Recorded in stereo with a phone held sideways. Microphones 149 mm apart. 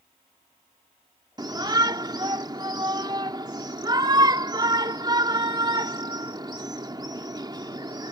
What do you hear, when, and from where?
1.4 s a shout: 30° right (ahead or behind)